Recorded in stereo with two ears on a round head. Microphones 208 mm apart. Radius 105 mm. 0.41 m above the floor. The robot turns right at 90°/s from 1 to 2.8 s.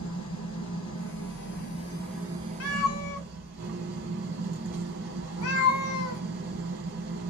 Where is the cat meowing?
65° left (ahead or behind), 0.7 m; by 6.2 s 75° left (ahead or behind), 0.7 m.